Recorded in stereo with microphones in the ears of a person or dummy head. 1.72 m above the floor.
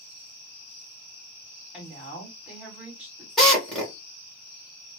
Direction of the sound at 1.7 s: 10° right (ahead or behind).